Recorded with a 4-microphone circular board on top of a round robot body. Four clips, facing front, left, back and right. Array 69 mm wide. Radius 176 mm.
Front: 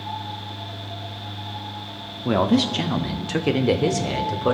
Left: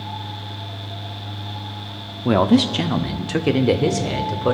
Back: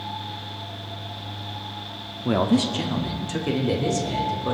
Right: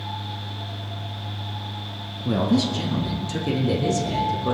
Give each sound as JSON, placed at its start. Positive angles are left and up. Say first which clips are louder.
{"t": 2.2, "sound": "a man speaking", "louder": "left 6 dB, front 1 dB", "azimuth_deg": 80, "distance_m": 1.1}